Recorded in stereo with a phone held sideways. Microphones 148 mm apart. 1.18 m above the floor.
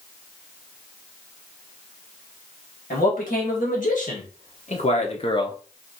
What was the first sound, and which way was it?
A man speaking, 75° left (ahead or behind).